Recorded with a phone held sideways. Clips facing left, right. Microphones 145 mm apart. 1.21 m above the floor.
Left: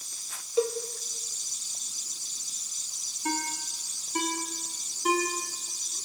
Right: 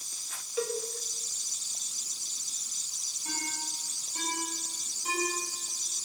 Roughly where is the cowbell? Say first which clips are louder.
Left 6 dB; left.